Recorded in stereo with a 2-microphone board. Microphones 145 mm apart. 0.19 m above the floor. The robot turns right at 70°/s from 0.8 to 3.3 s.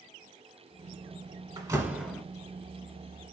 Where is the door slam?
40° right, 1.0 m; by 2.2 s 5° left, 1.0 m.